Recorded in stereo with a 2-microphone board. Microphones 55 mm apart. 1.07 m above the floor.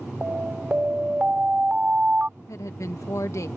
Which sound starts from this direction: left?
A woman speaking, at 2.4 s.